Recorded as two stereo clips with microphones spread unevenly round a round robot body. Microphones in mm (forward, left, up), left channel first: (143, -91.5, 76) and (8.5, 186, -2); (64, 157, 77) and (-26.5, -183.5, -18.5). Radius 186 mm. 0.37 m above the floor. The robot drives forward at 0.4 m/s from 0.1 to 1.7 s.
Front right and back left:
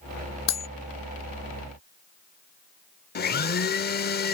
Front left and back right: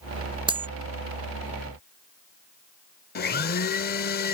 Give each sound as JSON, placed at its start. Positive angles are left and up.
{"t": 0.5, "sound": "cutlery clinking", "azimuth_deg": -30}
{"t": 3.1, "sound": "a blender", "azimuth_deg": 5}